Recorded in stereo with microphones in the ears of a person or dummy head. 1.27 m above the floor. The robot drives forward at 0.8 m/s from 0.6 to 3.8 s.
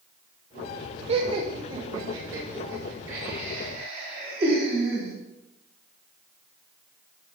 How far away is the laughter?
About 0.7 m.